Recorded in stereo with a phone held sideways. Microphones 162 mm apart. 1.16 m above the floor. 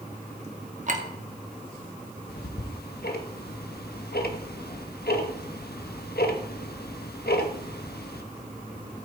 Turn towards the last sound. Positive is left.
turn(degrees=80)